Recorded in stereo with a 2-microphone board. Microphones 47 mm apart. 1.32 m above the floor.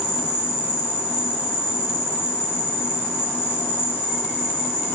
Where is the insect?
75° left (ahead or behind), 1.1 m.